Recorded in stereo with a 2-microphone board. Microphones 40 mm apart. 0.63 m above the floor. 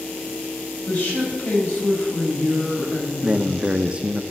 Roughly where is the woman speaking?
Left.